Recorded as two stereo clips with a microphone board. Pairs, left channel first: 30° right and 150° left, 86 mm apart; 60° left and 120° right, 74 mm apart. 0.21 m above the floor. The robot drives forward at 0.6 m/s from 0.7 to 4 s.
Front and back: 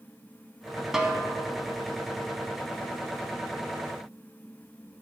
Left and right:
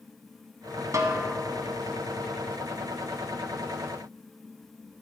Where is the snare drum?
125° right, 1.2 m; by 1.3 s 135° right, 1.3 m.